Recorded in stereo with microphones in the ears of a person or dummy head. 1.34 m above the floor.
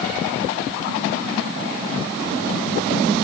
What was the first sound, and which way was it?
Only background noise.